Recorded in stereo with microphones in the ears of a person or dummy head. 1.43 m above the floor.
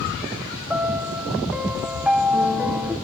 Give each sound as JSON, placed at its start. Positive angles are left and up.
{"t": 0.7, "sound": "a piano", "side_deg": -10, "distance_m": 1.4}